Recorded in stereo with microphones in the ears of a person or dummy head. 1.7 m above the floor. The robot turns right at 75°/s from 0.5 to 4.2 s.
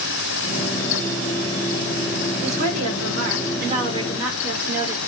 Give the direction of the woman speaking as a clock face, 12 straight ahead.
5 o'clock.